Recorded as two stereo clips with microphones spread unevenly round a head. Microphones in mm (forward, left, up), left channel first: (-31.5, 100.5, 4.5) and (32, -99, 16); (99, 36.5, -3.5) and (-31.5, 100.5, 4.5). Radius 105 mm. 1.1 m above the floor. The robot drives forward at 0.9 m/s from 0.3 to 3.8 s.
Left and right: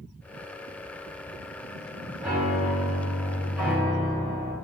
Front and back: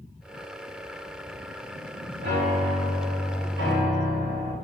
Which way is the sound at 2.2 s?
155° right.